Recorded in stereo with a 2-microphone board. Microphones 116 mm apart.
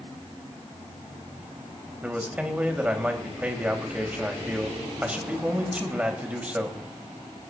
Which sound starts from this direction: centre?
A man speaking, at 2.0 s.